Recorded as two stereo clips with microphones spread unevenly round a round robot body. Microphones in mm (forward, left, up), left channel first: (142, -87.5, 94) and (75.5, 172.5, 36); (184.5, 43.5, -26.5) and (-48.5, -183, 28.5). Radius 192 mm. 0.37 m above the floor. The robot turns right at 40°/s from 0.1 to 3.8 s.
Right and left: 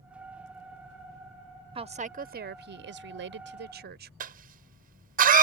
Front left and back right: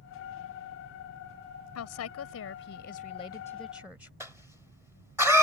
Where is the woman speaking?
50° left; by 4.1 s 130° left.